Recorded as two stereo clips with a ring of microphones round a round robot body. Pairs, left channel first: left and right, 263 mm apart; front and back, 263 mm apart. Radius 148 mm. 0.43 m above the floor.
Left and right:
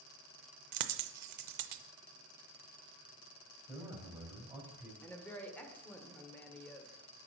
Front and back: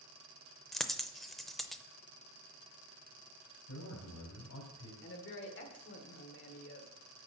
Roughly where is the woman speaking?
Ahead.